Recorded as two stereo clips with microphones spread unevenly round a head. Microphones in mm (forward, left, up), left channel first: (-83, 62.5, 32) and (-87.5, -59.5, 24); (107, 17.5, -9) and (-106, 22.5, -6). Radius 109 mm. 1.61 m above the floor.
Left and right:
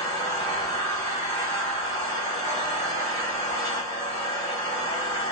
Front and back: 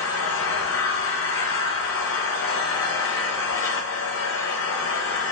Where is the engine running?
15° left, 0.8 m.